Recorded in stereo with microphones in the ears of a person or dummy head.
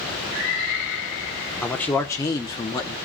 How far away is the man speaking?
About 1.2 m.